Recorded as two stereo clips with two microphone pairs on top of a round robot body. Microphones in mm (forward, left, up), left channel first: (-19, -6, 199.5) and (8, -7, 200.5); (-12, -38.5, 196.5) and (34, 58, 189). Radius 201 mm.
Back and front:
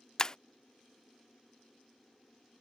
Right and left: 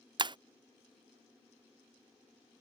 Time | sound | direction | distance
0.2 | breaking glass | 115° left | ?